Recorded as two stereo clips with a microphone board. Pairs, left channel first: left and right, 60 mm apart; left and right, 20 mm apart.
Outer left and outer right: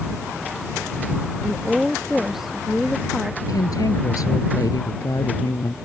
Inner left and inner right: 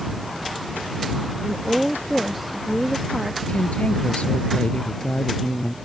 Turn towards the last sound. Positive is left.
turn(degrees=75)  # may be behind; listen again after turning